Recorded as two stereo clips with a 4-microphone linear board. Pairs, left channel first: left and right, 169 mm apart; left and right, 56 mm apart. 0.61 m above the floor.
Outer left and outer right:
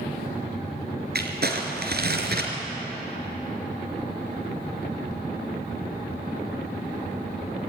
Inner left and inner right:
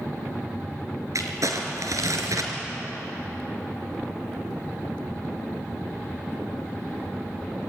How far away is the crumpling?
About 3.5 m.